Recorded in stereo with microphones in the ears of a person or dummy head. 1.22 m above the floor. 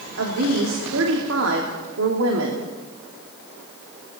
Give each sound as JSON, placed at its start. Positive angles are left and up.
{"t": 0.2, "sound": "a woman speaking", "side_deg": -85, "distance_m": 3.0}